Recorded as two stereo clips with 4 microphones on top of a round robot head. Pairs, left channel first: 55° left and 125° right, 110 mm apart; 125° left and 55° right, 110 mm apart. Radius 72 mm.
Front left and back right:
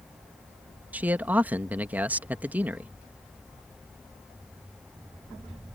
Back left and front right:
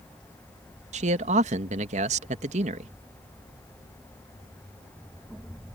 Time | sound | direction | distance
0.9 | a man speaking | 45° right | ?